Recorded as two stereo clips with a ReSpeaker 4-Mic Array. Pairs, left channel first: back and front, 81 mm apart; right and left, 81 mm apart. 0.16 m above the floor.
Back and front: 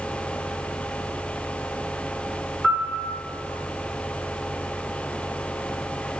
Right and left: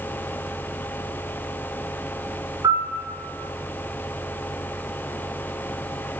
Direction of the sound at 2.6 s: 75° left.